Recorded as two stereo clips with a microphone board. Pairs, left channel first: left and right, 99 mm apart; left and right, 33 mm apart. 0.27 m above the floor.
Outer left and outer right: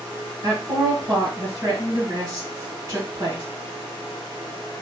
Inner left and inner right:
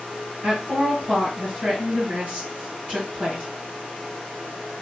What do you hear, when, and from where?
0.4 s a woman speaking: 40° right (ahead or behind), 2.0 m